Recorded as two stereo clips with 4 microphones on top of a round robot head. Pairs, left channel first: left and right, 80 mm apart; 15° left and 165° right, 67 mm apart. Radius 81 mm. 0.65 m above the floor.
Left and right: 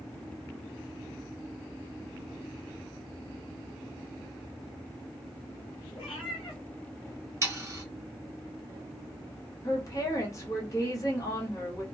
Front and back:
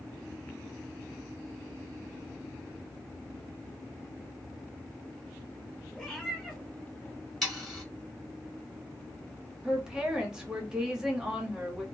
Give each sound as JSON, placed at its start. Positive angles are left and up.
{"t": 6.0, "sound": "a cat meowing", "azimuth_deg": 95, "distance_m": 1.2}
{"t": 7.4, "sound": "sawing", "azimuth_deg": -70, "distance_m": 1.4}
{"t": 9.6, "sound": "a woman speaking", "azimuth_deg": 115, "distance_m": 1.3}